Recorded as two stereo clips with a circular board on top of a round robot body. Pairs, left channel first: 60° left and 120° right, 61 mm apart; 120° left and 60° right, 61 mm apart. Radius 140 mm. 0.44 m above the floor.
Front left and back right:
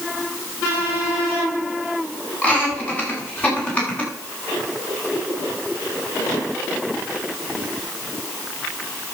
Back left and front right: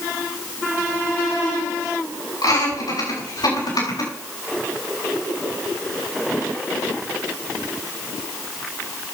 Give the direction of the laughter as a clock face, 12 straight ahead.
8 o'clock.